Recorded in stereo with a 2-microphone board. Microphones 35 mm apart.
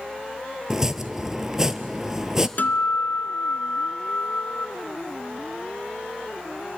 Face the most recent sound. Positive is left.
turn(degrees=55)  # may be behind; listen again after turning